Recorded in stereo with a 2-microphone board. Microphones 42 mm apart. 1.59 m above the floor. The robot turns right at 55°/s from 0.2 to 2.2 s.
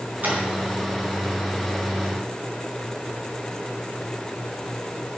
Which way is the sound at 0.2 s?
45° right (ahead or behind).